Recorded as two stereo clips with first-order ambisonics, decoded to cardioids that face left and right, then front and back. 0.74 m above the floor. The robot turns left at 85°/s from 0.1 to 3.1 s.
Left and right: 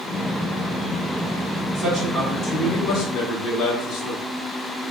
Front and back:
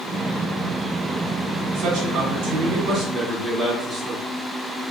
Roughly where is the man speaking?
Behind right.